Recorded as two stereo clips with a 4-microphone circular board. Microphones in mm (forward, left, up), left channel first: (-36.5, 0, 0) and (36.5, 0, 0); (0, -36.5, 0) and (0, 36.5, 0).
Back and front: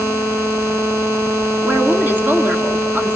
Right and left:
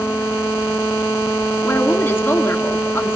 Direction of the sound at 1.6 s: 45° right.